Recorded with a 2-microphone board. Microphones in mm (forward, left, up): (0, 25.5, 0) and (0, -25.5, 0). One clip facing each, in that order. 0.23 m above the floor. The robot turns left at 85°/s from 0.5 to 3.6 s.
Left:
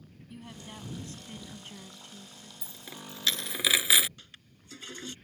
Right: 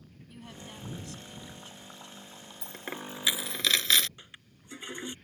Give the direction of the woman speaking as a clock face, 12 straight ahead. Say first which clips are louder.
Left 1 dB; 6 o'clock.